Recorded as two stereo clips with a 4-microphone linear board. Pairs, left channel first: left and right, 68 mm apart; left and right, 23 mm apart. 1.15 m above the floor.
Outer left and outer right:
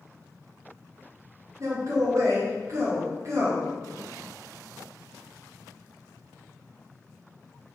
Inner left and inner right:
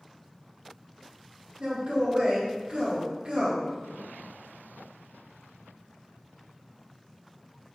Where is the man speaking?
50° right (ahead or behind), 0.8 m.